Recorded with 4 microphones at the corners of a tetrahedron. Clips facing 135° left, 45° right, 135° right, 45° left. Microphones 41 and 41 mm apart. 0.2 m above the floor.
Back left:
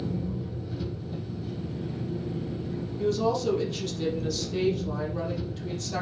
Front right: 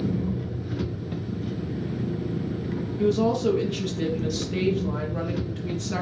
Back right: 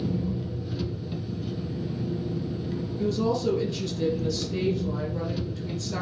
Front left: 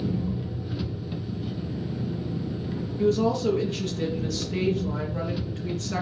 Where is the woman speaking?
10° right, 4 m.